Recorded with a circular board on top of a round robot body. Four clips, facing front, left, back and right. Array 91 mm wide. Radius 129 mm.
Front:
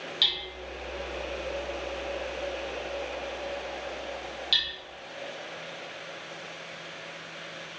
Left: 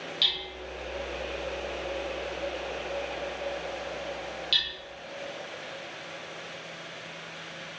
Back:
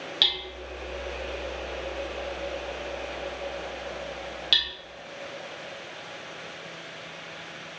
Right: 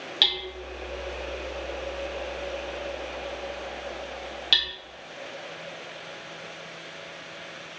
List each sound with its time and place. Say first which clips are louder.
0.2 s hammering: right 4 dB, back 2 dB; 120° right, 1.0 m